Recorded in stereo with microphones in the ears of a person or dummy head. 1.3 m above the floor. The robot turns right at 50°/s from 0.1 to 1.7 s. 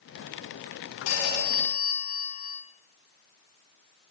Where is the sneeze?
I don't hear a sneeze.